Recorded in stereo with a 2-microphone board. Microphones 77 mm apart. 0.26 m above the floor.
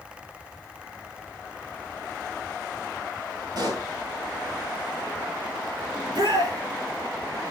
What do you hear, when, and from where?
3.5 s a pop: 60° right (ahead or behind), 4.5 m
6.0 s a shout: 70° right (ahead or behind), 4.5 m